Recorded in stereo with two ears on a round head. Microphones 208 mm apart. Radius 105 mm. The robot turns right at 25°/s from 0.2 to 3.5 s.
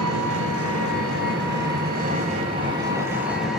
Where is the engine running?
85° right, 2 m; by 3.6 s straight ahead, 2 m.